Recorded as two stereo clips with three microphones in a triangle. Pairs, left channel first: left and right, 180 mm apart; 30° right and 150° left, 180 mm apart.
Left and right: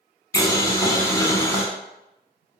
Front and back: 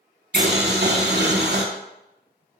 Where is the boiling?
160° left, 0.7 m.